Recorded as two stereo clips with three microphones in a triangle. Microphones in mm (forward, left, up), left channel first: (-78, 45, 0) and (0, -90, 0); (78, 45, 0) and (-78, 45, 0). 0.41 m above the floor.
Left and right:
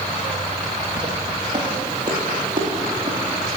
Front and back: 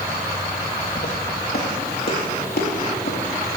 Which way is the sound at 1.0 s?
Straight ahead.